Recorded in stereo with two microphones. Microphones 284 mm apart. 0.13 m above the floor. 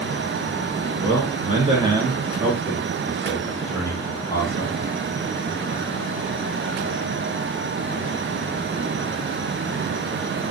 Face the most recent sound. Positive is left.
turn(degrees=15)  # may be behind; listen again after turning